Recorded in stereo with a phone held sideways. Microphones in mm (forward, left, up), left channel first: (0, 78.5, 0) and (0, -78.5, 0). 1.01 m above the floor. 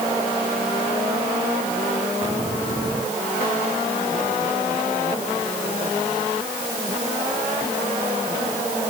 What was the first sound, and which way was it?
Only background noise.